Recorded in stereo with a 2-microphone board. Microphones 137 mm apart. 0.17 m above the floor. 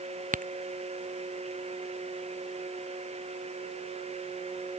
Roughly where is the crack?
Right.